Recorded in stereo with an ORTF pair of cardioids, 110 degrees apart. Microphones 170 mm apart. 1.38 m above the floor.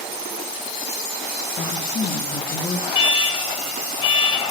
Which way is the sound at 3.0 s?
30° left.